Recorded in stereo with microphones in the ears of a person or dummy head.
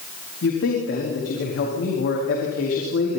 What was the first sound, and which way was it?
A man speaking, 65° left (ahead or behind).